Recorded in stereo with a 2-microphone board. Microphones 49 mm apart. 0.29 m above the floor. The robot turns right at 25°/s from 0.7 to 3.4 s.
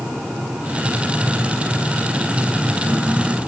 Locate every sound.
Only background noise.